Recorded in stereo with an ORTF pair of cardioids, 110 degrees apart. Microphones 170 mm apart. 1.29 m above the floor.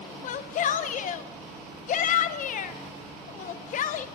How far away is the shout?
About 0.6 m.